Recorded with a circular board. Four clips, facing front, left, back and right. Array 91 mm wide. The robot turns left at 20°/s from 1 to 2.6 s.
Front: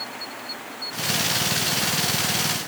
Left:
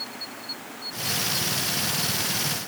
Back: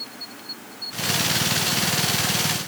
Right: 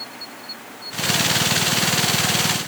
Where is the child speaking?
I don't hear a child speaking.